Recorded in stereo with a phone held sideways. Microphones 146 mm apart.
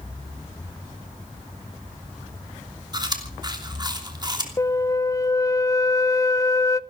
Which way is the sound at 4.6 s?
20° left (ahead or behind).